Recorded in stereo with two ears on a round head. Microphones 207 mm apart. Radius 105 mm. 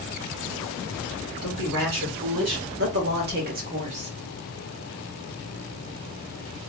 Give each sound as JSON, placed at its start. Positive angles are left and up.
{"t": 1.4, "sound": "a woman speaking", "side_deg": -65, "distance_m": 2.5}